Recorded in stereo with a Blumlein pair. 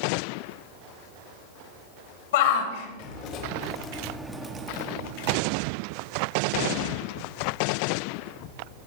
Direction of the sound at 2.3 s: 55° left.